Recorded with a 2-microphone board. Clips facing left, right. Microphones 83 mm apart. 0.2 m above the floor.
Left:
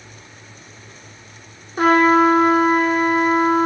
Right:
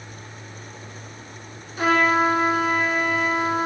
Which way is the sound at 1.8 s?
45° left (ahead or behind).